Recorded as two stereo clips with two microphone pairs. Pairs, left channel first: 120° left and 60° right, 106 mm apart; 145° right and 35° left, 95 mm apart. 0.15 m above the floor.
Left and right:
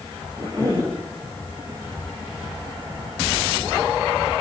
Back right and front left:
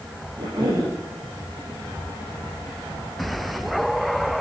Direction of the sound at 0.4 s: Straight ahead.